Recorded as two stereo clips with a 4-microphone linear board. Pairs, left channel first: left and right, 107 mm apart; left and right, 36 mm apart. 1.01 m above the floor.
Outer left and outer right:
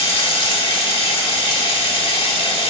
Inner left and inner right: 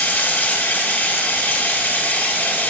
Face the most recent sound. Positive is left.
turn(degrees=55)  # may be behind; listen again after turning